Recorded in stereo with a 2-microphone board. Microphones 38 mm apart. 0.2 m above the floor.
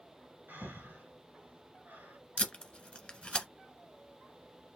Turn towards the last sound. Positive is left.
turn(degrees=25)  # may be behind; listen again after turning